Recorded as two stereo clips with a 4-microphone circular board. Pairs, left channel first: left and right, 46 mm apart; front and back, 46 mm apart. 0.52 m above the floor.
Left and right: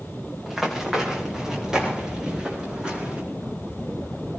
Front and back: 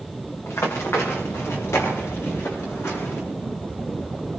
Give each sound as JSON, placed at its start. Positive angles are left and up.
{"t": 0.5, "sound": "running footsteps", "azimuth_deg": -5, "distance_m": 4.0}